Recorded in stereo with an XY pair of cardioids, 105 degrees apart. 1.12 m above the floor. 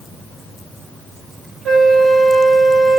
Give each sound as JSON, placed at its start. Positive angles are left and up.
{"t": 1.6, "sound": "a flute", "azimuth_deg": -60, "distance_m": 1.5}